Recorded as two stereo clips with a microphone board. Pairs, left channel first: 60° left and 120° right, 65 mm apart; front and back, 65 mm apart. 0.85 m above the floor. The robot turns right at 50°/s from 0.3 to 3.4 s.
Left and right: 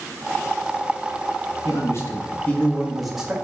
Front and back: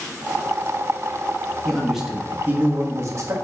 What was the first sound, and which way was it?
A man speaking, 80° left.